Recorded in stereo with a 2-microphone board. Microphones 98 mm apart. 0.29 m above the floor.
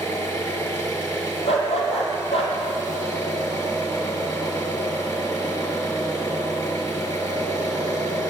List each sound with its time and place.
0.0 s an engine running: 35° left (ahead or behind), 4.5 m
1.4 s a dog barking: 80° left, 4 m